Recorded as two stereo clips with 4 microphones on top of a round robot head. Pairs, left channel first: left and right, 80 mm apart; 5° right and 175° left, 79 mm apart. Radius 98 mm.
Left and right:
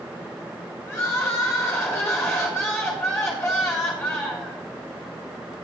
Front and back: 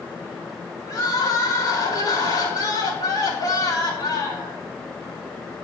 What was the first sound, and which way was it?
Crying, 35° left.